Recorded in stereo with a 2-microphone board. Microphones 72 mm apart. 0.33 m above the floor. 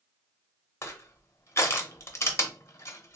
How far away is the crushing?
About 0.6 m.